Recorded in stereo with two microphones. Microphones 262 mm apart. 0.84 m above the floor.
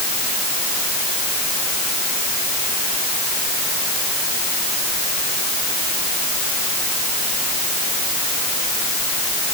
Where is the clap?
No clap in this recording.